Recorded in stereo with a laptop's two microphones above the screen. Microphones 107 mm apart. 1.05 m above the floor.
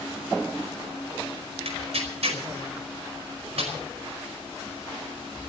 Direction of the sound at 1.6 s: 65° right (ahead or behind).